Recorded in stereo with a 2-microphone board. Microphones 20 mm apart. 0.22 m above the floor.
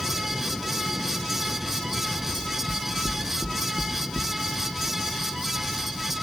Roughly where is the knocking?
Left.